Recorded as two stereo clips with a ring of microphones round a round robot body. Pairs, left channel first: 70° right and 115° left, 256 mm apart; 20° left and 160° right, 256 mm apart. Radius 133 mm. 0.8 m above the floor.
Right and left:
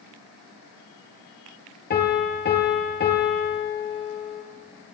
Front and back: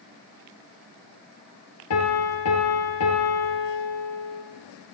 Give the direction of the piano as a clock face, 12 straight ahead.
12 o'clock.